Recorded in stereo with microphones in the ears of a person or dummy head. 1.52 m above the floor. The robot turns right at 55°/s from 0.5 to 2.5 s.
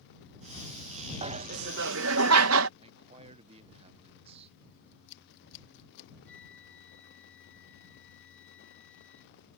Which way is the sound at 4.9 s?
60° left (ahead or behind).